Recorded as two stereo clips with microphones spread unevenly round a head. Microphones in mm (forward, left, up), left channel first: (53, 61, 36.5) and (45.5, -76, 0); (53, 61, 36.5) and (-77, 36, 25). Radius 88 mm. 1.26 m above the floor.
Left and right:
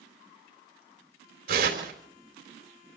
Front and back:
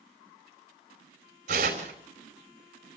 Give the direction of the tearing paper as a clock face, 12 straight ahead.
4 o'clock.